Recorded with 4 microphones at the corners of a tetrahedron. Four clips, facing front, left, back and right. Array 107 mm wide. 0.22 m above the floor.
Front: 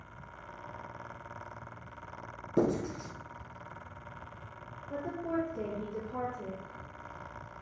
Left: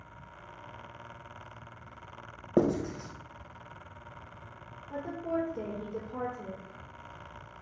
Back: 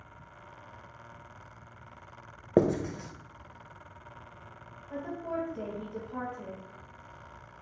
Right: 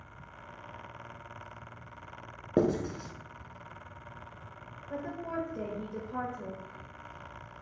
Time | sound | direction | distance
2.6 | writing | 175° right | 0.7 m
4.9 | a woman speaking | 95° right | 2.5 m